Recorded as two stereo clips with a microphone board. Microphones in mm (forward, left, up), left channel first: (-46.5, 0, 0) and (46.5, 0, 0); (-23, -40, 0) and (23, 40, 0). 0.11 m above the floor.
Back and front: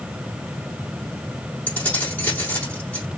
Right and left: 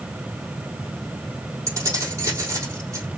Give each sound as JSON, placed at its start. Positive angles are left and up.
{"t": 1.7, "sound": "keys jangling", "azimuth_deg": 110, "distance_m": 3.5}